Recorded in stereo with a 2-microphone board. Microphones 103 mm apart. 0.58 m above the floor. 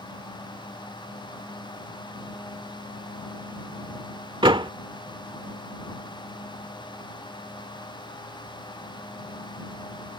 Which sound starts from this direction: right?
A door slam, at 4.4 s.